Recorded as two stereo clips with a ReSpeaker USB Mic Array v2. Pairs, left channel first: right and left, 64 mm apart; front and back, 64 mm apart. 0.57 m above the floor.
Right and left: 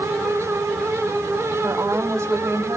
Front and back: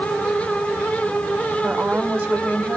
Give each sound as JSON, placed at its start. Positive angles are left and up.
{"t": 1.6, "sound": "a woman speaking", "azimuth_deg": 125, "distance_m": 1.8}